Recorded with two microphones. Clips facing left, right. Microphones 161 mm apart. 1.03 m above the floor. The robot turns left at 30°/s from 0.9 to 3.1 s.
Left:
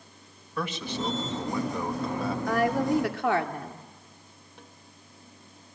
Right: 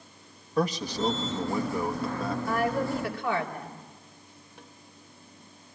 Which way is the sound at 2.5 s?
80° left.